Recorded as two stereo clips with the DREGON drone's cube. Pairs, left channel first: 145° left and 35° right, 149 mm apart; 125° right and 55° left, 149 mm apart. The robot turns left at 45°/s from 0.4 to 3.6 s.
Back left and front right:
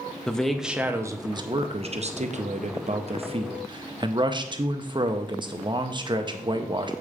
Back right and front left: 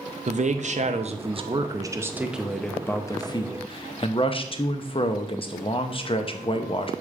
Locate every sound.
0.3 s a man speaking: 60° left, 0.6 m; by 6.9 s 85° right, 0.6 m